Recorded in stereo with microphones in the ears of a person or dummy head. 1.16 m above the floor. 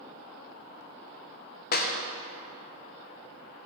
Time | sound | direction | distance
1.7 | a clap | 45° left (ahead or behind) | 0.5 m